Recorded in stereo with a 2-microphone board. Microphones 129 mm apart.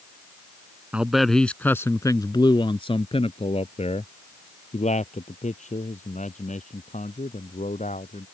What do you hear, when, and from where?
0.9 s a man speaking: 10° right (ahead or behind); by 8.2 s 75° left (ahead or behind)